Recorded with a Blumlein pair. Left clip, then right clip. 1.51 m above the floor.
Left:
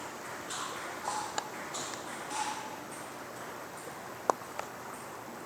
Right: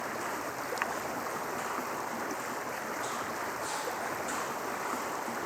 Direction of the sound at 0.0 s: 25° right.